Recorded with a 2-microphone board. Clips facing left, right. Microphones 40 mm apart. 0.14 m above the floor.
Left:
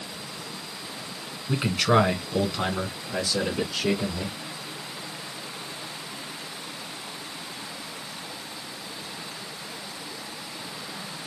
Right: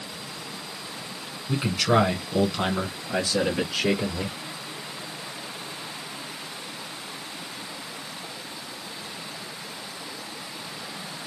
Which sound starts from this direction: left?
A man speaking, at 1.5 s.